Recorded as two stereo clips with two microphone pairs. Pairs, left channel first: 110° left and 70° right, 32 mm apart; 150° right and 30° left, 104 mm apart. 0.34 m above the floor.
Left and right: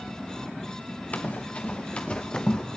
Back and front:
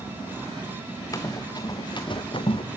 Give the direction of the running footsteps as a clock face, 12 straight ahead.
7 o'clock.